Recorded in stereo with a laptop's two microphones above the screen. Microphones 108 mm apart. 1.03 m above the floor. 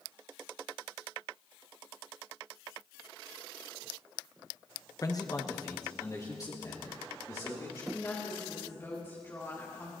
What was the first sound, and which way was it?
A man speaking, 35° left (ahead or behind).